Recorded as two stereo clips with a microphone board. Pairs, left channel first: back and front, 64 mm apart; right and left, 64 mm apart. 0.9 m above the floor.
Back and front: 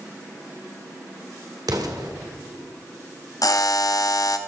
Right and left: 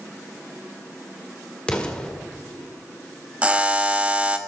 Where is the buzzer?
155° left, 0.9 m.